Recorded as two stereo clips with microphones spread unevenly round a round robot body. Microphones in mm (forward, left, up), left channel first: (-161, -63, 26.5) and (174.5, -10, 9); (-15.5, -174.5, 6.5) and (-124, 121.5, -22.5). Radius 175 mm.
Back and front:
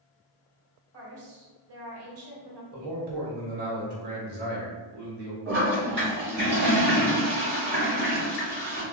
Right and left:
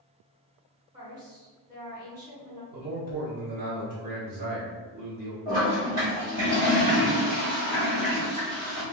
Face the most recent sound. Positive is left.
turn(degrees=55)